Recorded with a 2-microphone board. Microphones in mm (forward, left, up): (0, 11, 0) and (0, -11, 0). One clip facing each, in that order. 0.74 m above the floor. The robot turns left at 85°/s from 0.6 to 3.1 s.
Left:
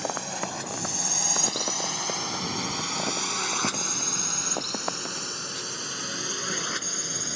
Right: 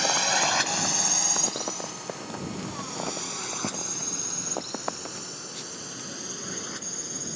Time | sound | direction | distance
0.0 | a drone | 55° right (ahead or behind) | ?